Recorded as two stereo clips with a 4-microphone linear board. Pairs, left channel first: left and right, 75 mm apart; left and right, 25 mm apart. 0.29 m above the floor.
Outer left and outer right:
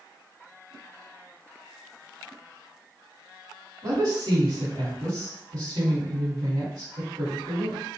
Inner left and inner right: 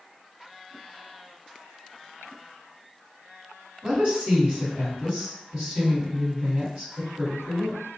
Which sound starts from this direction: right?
A woman speaking, at 3.8 s.